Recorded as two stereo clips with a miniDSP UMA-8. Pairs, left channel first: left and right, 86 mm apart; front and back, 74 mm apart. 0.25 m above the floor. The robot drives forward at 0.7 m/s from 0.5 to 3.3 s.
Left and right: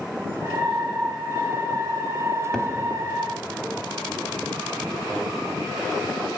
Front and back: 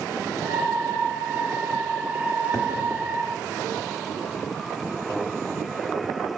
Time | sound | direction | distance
2.5 | a cupboard door | 10° left | 0.7 m